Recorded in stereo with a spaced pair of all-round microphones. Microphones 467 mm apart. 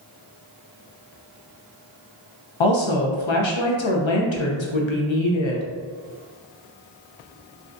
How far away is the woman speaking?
About 0.7 m.